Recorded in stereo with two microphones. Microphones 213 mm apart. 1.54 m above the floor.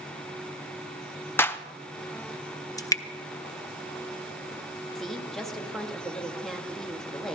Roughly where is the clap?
Centre.